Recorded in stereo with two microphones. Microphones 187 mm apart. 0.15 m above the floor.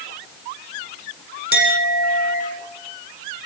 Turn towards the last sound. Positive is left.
turn(degrees=55)  # may be behind; listen again after turning